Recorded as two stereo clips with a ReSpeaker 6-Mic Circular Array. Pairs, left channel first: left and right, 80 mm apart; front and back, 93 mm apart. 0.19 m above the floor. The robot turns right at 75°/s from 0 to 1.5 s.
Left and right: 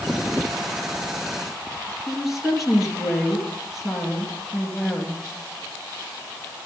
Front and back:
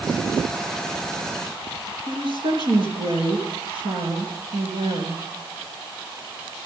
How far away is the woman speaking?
About 3.5 m.